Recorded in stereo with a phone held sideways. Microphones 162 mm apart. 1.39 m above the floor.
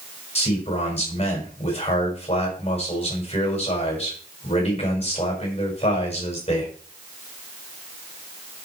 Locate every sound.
0.3 s a man speaking: 35° left (ahead or behind), 6 m